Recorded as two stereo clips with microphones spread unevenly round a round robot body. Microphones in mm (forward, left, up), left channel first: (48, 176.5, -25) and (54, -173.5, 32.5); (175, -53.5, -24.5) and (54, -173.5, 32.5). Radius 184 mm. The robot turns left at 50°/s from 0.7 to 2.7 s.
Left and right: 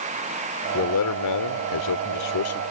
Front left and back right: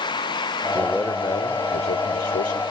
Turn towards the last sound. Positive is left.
turn(degrees=45)